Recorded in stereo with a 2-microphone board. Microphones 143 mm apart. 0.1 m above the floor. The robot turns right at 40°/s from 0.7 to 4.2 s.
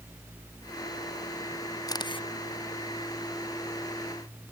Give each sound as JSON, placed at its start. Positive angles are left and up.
{"t": 1.9, "sound": "a camera shutter", "side_deg": 25}